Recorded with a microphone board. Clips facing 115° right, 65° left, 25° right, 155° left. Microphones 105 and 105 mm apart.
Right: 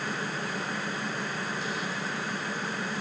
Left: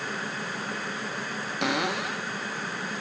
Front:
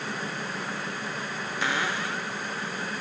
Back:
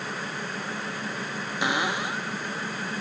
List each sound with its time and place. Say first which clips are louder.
1.6 s a cupboard door: left 6 dB, back 2 dB; 85° left